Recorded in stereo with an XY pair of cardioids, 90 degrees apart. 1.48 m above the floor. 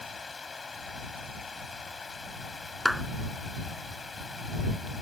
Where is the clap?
5° left.